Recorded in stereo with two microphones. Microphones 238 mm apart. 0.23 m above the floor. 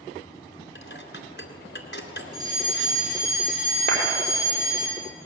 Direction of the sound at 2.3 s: 15° right (ahead or behind).